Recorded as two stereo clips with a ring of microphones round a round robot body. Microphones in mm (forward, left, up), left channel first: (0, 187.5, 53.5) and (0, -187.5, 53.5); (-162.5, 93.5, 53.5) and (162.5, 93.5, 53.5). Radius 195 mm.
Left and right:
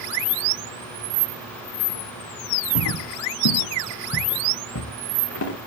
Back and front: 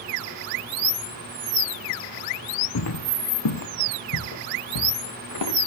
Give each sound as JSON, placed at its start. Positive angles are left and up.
{"t": 2.8, "sound": "footsteps", "azimuth_deg": 135, "distance_m": 2.5}